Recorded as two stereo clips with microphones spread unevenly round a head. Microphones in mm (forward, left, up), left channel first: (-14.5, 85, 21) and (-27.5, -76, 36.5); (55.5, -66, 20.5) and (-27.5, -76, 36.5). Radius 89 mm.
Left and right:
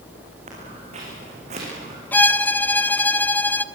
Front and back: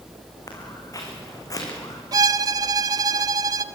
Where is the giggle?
No giggle in this recording.